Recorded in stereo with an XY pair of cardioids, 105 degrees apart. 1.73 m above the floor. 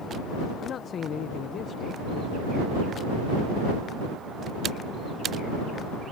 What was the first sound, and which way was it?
A man speaking, 60° left.